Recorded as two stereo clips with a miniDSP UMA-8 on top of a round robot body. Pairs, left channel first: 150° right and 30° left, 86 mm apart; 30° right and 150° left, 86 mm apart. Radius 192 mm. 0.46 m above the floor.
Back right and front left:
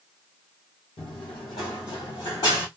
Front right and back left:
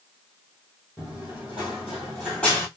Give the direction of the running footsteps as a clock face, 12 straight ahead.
4 o'clock.